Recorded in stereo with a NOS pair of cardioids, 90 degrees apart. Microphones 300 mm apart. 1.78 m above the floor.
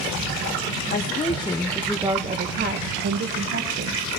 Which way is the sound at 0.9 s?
35° left.